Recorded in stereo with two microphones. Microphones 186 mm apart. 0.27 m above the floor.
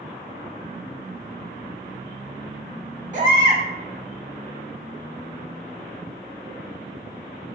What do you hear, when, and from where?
3.1 s a baby crying: 40° right (ahead or behind), 0.6 m